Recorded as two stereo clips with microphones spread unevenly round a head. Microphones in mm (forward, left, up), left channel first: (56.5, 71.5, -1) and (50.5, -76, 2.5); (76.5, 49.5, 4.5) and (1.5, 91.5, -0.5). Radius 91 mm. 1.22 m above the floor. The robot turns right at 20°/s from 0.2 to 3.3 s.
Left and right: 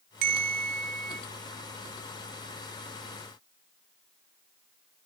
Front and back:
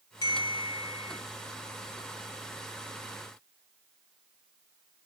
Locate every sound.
0.2 s a bell: 95° right, 1.4 m; by 1.2 s 75° right, 1.4 m